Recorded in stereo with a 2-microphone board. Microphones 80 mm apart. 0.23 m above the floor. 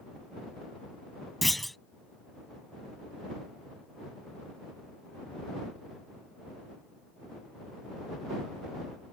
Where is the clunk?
Centre (ahead or behind).